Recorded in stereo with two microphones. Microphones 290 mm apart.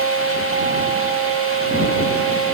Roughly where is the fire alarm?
I don't hear a fire alarm.